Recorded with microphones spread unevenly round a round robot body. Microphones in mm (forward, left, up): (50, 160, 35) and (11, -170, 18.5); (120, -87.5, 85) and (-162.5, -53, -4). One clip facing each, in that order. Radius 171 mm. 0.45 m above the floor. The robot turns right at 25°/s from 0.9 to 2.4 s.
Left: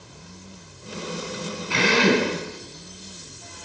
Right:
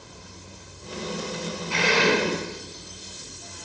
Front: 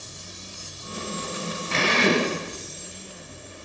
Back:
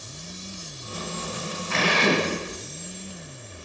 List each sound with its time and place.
1.7 s a drill: 60° left, 5.5 m; by 2.3 s 75° left, 5.5 m